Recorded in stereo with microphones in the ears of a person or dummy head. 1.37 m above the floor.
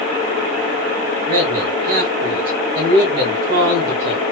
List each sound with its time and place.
1.3 s a man speaking: 55° right (ahead or behind), 1.5 m